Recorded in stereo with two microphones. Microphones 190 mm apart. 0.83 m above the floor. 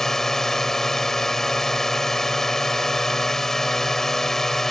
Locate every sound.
0.0 s a drone: centre (ahead or behind)